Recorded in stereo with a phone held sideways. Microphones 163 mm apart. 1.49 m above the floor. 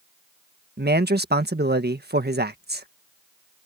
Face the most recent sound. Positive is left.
turn(degrees=-85)